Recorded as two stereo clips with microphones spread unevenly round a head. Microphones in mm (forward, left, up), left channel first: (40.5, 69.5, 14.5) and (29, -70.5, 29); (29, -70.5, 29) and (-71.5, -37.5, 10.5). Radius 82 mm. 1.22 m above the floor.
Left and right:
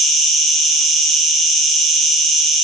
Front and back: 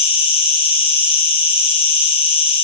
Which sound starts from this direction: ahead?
An insect, at 0.0 s.